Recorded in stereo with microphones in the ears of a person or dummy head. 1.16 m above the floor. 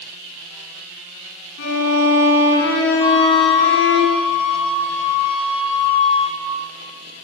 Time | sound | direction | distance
1.6 | a violin | 65° left (ahead or behind) | 10 m
3.0 | a flute | 25° left (ahead or behind) | 9.5 m